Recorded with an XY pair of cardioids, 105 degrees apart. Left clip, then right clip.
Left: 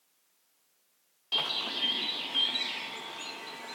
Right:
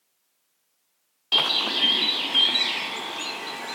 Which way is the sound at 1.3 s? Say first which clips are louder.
Right 9 dB; 60° right.